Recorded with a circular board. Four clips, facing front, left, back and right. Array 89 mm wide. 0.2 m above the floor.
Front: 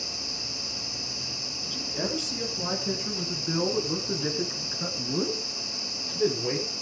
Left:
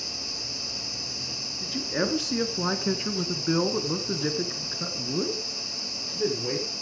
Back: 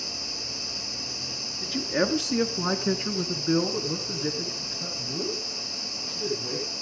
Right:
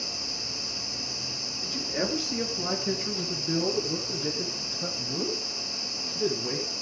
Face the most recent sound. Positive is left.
turn(degrees=40)